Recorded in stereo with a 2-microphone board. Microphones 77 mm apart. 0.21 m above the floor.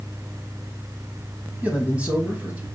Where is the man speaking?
20° right (ahead or behind), 1.1 m.